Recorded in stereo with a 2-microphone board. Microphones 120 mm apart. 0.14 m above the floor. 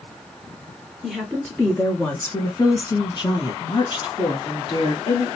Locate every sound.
1.0 s a woman speaking: 10° left (ahead or behind), 1.4 m; by 5.4 s 45° left (ahead or behind), 2.0 m